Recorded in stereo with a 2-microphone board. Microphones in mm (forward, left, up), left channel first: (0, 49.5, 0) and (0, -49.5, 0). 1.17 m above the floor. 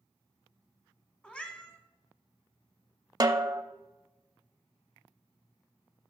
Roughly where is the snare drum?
Right.